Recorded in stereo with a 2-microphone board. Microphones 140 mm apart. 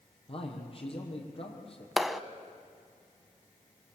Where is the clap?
Centre (ahead or behind), 0.8 m.